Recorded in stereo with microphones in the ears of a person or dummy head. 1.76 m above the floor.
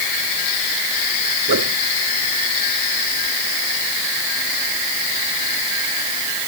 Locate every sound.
1.5 s a whoosh: 60° right (ahead or behind)